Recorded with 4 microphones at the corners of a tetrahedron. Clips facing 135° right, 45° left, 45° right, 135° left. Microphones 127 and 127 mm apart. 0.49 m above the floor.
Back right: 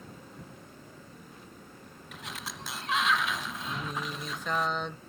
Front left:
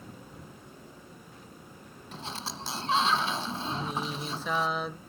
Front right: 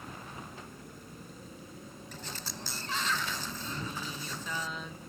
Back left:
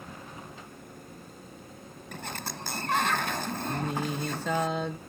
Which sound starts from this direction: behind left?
Singing, at 3.7 s.